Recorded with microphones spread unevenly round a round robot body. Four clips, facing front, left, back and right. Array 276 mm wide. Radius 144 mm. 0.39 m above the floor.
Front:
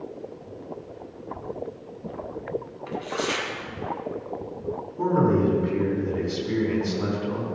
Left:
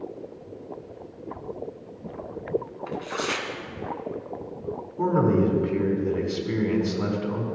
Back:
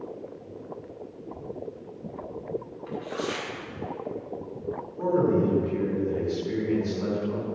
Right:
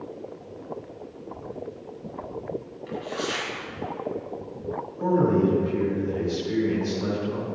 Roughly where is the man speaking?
Ahead left.